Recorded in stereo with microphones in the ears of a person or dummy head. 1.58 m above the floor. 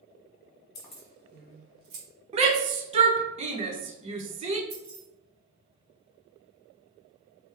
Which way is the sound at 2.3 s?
35° right (ahead or behind).